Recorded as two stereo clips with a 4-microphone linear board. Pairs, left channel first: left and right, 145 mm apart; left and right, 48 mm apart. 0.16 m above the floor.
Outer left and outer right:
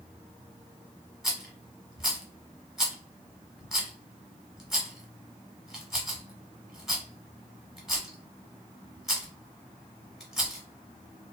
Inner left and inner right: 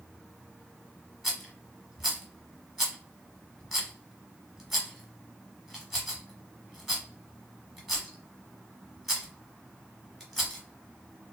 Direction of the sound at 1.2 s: Centre (ahead or behind).